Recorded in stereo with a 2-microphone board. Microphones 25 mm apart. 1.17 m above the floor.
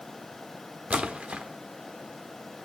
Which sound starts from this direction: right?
A splash, at 0.9 s.